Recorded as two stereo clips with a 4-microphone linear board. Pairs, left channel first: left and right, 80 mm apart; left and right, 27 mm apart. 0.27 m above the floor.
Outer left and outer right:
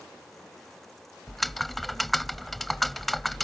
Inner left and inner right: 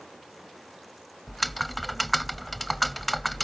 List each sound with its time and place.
1.3 s typing on a keyboard: centre (ahead or behind)